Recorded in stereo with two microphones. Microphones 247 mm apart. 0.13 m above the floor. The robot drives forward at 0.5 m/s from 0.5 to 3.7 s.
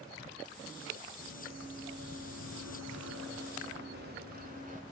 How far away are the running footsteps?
About 2.5 m.